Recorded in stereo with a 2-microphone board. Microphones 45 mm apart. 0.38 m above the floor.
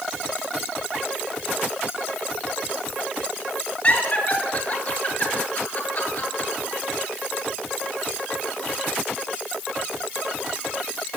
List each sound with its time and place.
3.8 s laughter: 35° left (ahead or behind), 7 m; by 6.5 s 50° left (ahead or behind), 7 m